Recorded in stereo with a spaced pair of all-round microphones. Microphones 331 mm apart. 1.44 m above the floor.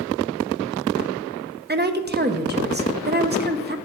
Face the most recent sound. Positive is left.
turn(degrees=-30)  # may be behind; listen again after turning